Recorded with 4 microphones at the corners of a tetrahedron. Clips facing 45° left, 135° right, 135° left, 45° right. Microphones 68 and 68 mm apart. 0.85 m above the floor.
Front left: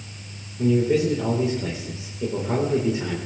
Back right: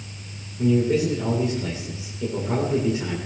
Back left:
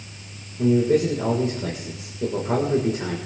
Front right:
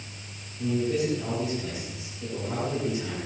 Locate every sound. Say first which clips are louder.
0.6 s a man speaking: even, back left 8 dB; 110° left, 3.5 m